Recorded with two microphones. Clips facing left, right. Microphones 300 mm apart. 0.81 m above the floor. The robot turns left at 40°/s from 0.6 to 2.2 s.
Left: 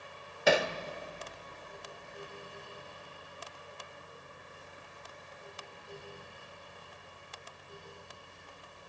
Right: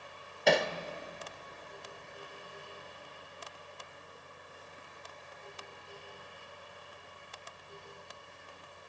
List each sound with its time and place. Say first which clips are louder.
0.5 s hammering: even; 5° left (ahead or behind), 1.3 m; by 0.7 s 10° left (ahead or behind), 1.3 m